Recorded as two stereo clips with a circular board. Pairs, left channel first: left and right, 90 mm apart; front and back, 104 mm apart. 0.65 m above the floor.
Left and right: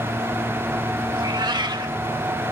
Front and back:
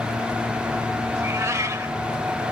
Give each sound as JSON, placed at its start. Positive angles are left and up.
{"t": 1.1, "sound": "a cat meowing", "azimuth_deg": -120, "distance_m": 0.8}